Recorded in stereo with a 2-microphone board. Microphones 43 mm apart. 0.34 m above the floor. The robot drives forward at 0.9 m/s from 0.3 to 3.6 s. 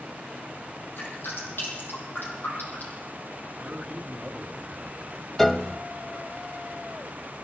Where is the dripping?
70° left (ahead or behind), 9 m; by 3.0 s 60° left (ahead or behind), 9.5 m.